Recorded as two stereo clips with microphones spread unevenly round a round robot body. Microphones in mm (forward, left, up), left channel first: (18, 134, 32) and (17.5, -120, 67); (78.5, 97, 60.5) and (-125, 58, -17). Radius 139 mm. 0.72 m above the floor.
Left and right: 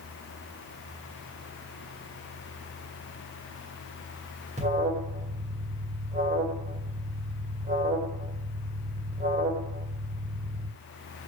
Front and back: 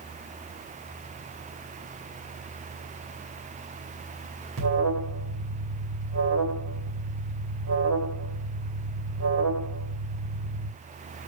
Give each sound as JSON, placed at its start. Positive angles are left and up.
{"t": 4.6, "sound": "an alarm", "azimuth_deg": -155, "distance_m": 1.9}